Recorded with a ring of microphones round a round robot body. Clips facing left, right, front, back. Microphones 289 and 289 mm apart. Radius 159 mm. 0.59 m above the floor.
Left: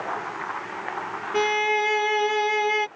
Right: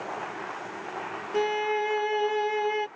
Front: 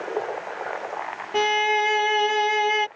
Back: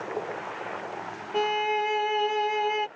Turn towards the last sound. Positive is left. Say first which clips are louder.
# left 2 dB, front 3 dB
turn(degrees=40)